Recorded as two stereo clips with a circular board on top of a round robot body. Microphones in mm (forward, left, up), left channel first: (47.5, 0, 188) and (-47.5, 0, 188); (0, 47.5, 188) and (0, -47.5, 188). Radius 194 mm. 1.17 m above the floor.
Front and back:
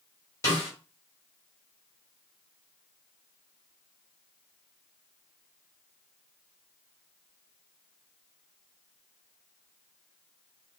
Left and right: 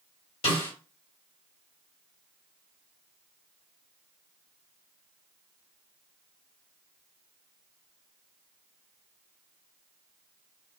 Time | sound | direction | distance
0.4 | a snare drum | 65° left | 3 m